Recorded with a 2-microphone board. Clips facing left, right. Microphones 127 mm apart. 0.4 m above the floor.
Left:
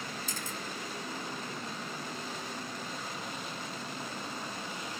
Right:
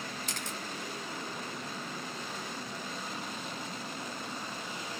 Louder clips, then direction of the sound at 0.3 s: Even; 80° right.